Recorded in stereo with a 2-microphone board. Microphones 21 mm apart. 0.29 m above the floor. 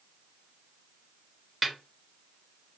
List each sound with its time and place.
1.6 s a snare drum: 10° right (ahead or behind), 0.7 m